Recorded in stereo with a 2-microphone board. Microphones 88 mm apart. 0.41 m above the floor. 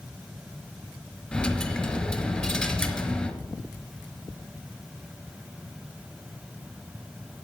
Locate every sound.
1.3 s a dropped coin: 15° left (ahead or behind), 1.5 m